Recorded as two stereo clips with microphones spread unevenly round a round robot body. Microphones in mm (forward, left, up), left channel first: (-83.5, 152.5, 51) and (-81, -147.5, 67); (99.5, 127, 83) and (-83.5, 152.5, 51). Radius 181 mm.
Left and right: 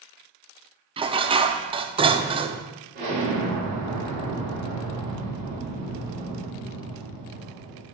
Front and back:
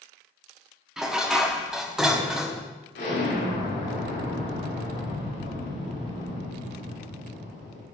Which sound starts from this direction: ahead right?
An explosion, at 3.0 s.